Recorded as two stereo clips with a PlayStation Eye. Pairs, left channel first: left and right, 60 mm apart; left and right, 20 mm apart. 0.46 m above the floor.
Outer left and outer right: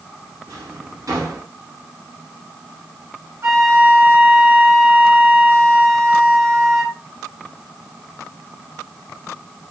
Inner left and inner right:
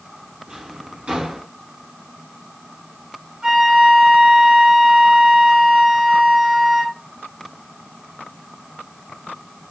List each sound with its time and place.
0.5 s a drawer: 75° right (ahead or behind), 3 m
3.4 s a flute: 50° right (ahead or behind), 2.5 m